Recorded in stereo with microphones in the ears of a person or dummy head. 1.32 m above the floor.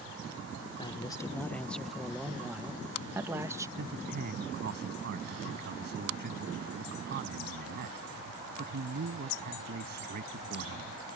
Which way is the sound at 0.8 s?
25° left (ahead or behind).